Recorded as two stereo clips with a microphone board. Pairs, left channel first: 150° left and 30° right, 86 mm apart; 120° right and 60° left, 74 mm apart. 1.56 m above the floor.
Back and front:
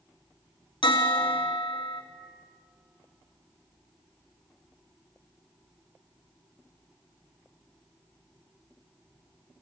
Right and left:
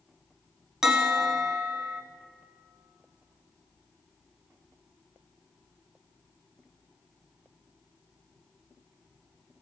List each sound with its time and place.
0.8 s a bell: 145° left, 1.0 m